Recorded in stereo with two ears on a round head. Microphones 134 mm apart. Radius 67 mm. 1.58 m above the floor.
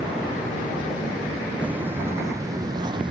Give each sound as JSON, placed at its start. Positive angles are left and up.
{"t": 1.6, "sound": "footsteps", "side_deg": -10}